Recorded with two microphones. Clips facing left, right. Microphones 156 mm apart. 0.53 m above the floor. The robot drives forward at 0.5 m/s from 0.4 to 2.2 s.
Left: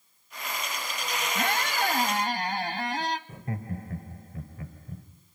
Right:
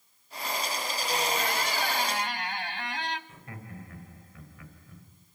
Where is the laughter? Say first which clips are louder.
Left 9 dB; 40° left (ahead or behind), 2 m.